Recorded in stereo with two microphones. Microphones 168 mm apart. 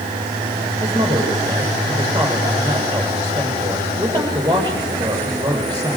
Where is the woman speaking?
25° right (ahead or behind), 8 m.